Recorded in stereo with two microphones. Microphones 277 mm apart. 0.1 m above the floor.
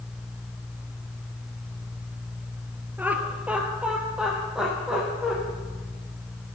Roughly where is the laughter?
Centre.